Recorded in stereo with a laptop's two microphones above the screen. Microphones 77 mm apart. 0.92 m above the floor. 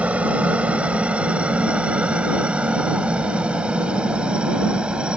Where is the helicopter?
15° right (ahead or behind).